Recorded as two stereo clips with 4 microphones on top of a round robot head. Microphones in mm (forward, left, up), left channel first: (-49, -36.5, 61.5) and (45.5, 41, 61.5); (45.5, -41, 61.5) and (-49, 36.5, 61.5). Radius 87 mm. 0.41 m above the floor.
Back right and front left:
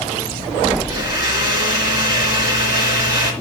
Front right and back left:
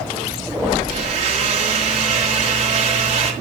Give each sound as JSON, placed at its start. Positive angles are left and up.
{"t": 0.9, "sound": "a blender", "azimuth_deg": 100, "distance_m": 3.0}